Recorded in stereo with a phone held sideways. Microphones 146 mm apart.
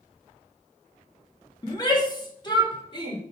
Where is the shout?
25° left (ahead or behind), 1.8 m; by 3.2 s 30° left (ahead or behind), 3.5 m.